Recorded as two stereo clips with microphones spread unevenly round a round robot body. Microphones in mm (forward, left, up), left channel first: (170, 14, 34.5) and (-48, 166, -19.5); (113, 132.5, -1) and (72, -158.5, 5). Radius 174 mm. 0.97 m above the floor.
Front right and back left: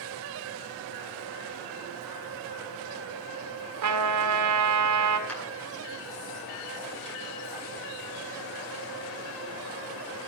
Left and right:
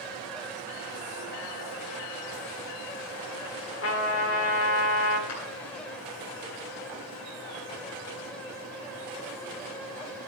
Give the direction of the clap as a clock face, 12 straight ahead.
10 o'clock.